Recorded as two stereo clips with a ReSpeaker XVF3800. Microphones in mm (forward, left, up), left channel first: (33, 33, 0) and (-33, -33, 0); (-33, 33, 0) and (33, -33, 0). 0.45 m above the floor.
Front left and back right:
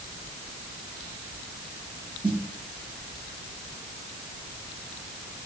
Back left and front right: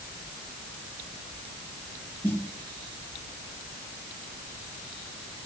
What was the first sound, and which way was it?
A snare drum, 155° right.